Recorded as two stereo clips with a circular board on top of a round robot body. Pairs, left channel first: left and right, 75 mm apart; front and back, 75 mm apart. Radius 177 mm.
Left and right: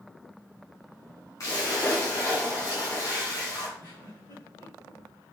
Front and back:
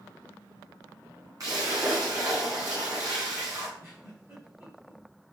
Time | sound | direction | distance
1.4 | a splash | 135° left | 1.6 m
3.8 | a giggle | 120° left | 2.5 m